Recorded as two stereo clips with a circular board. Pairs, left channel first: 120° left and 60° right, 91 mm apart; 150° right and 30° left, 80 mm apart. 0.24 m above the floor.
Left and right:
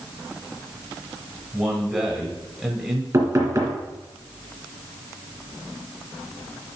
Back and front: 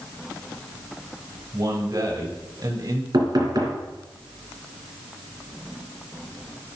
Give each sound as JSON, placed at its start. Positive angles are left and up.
{"t": 1.5, "sound": "a man speaking", "azimuth_deg": 10, "distance_m": 1.7}
{"t": 3.1, "sound": "knocking", "azimuth_deg": -5, "distance_m": 3.0}